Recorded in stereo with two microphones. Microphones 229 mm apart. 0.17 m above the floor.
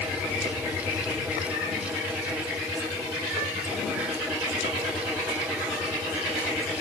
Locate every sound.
Only background noise.